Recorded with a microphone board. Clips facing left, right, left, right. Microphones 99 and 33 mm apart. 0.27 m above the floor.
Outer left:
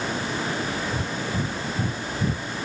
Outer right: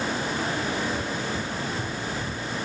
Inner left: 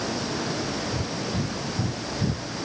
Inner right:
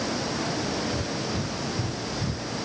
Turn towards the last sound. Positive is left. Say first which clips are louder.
# even, even
turn(degrees=50)  # may be behind; listen again after turning